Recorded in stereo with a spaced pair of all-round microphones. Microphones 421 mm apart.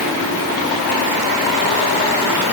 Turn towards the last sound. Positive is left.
No sound to turn to.